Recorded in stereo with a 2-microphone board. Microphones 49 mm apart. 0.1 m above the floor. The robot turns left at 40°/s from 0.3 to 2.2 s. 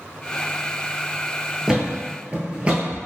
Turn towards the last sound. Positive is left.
turn(degrees=-25)  # may be behind; listen again after turning